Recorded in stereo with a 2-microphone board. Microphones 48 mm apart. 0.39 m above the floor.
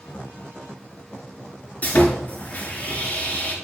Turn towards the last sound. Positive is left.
turn(degrees=35)  # may be behind; listen again after turning